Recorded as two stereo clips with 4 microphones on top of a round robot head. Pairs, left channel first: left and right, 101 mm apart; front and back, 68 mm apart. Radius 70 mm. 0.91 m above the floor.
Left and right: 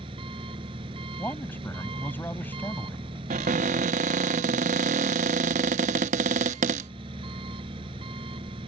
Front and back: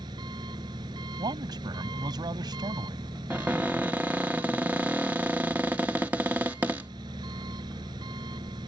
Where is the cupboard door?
100° right.